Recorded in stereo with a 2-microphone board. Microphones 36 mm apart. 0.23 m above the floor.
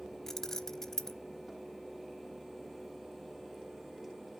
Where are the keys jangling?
15° left (ahead or behind), 0.7 m.